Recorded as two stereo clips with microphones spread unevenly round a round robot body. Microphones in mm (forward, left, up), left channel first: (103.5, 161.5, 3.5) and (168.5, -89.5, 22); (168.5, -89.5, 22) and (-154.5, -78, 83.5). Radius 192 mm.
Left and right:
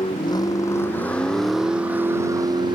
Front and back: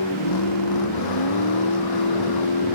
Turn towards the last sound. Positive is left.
turn(degrees=-5)